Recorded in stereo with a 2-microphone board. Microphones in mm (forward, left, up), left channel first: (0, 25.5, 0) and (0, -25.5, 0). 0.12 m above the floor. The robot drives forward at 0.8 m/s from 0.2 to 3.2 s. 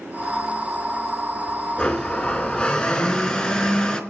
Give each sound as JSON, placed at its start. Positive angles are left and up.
{"t": 1.8, "sound": "a blender", "side_deg": 20, "distance_m": 1.1}